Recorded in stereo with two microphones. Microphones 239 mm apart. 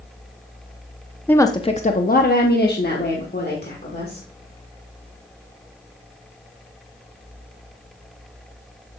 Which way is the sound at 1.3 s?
5° left (ahead or behind).